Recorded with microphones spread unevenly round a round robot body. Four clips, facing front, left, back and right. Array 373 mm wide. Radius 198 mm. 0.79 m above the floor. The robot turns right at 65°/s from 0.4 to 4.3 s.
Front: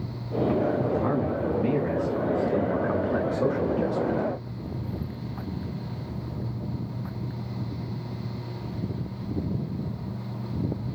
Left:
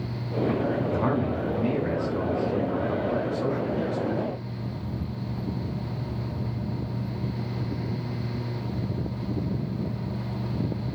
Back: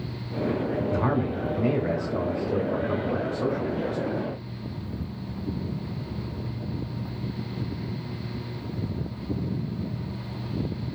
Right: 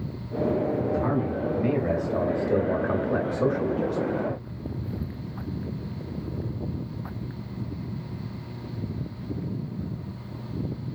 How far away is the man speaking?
About 1.7 m.